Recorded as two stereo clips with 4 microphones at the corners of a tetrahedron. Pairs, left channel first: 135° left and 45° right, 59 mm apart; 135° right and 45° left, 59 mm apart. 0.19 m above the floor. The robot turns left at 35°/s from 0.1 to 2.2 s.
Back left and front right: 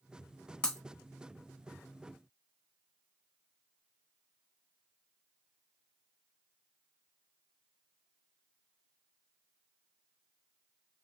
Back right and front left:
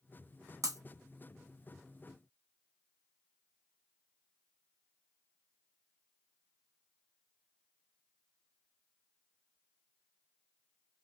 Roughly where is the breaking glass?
Ahead left.